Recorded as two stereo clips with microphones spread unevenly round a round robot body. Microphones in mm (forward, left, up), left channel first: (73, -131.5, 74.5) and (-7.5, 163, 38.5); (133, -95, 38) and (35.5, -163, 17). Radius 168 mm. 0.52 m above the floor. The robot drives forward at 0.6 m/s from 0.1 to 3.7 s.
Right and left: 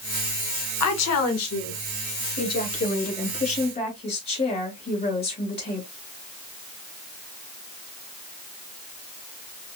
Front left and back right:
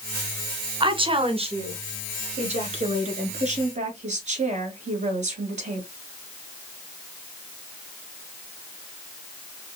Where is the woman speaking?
110° right, 1.6 m; by 5.9 s 150° right, 2.5 m.